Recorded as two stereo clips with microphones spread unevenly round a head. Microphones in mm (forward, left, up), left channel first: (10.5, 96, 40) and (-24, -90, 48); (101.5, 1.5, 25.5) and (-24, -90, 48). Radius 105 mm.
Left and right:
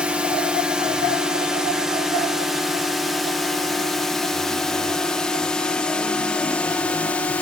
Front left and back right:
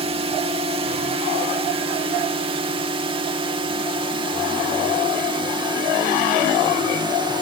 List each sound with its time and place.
0.0 s a drone: 175° left; by 7.4 s 160° left